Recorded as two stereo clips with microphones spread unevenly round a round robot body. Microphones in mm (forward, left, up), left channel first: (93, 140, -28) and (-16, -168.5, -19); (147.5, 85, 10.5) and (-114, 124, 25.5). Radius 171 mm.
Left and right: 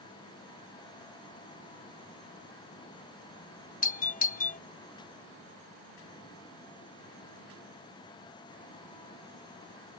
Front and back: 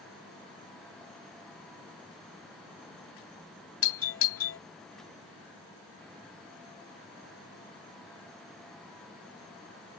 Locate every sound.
3.8 s a doorbell: 10° left